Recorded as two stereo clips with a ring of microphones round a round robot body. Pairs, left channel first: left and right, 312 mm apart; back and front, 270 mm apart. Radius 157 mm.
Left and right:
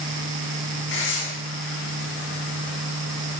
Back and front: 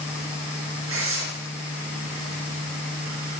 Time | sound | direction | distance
0.9 | tearing paper | 35° left | 5.5 m